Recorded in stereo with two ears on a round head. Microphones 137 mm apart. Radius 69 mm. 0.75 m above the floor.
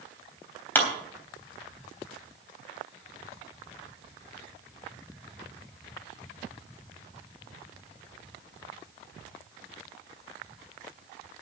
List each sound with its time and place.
0.8 s a clap: 15° left (ahead or behind), 3 m